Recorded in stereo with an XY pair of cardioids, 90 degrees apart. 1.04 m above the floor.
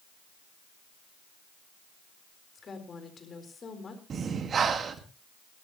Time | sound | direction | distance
2.5 | a woman speaking | 45° left | 4 m
4.1 | breathing | 55° right | 1.8 m